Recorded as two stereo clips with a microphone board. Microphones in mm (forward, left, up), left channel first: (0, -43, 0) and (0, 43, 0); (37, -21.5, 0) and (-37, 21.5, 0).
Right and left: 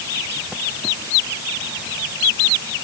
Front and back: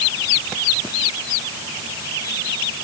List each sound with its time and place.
Only background noise.